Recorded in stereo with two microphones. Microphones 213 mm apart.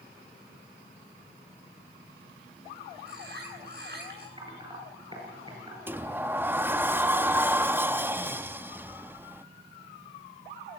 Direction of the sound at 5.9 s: 10° right (ahead or behind).